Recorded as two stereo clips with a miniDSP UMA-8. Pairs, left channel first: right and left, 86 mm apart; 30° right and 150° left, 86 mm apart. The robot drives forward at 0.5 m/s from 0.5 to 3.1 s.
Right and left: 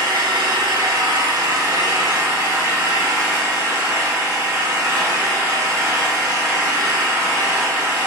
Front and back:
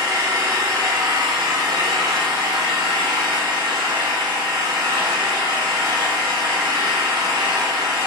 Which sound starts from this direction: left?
An engine running, at 0.0 s.